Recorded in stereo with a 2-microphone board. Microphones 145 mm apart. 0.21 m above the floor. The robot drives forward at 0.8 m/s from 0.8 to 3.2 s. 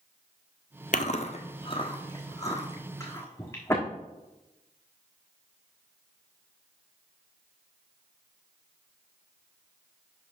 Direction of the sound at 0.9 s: 70° left (ahead or behind).